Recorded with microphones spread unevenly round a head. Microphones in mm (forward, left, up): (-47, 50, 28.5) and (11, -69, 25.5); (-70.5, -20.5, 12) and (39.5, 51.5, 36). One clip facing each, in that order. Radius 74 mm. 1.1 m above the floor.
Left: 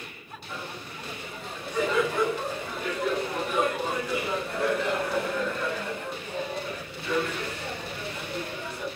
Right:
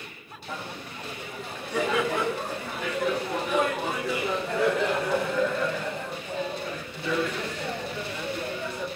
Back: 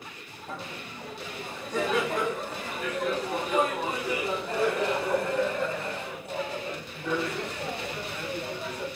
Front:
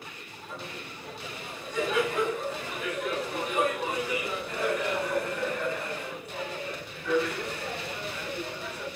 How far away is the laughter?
About 10 m.